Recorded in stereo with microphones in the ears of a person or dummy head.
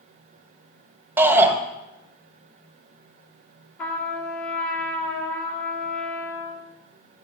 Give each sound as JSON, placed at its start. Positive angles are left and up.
{"t": 1.2, "sound": "a shout", "side_deg": -10, "distance_m": 1.1}
{"t": 3.8, "sound": "a trumpet", "side_deg": 10, "distance_m": 1.9}